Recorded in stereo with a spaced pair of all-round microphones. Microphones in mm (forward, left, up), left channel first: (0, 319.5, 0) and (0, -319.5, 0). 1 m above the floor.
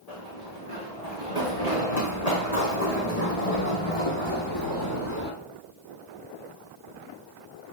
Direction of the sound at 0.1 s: 70° left (ahead or behind).